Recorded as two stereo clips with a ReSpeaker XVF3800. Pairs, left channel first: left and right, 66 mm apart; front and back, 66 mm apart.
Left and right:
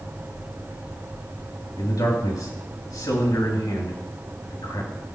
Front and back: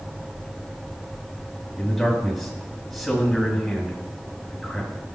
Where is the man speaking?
90° left, 4.5 m.